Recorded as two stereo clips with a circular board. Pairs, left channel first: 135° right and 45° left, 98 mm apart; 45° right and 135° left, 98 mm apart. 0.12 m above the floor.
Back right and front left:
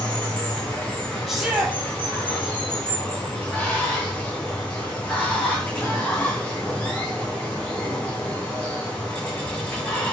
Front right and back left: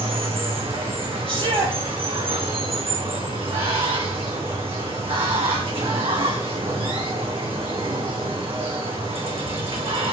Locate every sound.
0.0 s running water: 150° left, 2.5 m
1.3 s a shout: 130° left, 3.5 m